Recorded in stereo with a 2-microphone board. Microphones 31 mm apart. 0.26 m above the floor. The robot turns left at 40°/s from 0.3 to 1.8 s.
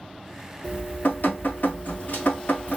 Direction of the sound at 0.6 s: 125° left.